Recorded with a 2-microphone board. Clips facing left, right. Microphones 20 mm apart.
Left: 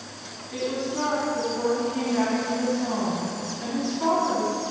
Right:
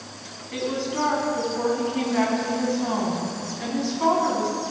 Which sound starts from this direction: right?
A woman speaking, at 0.5 s.